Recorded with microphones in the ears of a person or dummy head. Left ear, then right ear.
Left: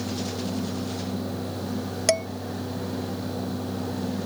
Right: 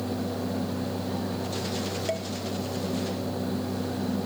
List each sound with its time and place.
2.1 s dishes clattering: 50° left (ahead or behind)